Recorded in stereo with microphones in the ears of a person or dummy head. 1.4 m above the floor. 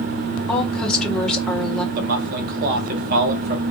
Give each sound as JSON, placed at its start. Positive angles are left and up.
{"t": 0.5, "sound": "a woman speaking", "side_deg": 5, "distance_m": 1.4}
{"t": 1.9, "sound": "a man speaking", "side_deg": -45, "distance_m": 1.1}